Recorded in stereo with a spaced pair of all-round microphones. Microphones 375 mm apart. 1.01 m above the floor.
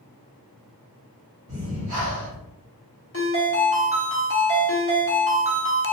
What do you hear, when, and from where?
1.5 s breathing: 45° right (ahead or behind), 1.1 m
3.1 s a ringtone: 35° left (ahead or behind), 1.0 m